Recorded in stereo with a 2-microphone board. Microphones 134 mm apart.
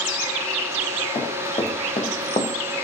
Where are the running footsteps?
55° left (ahead or behind), 3.5 m; by 2.5 s 60° left (ahead or behind), 2 m.